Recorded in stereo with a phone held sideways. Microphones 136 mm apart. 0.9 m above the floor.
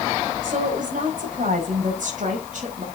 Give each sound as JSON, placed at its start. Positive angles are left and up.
{"t": 0.4, "sound": "a woman speaking", "side_deg": -80, "distance_m": 4.5}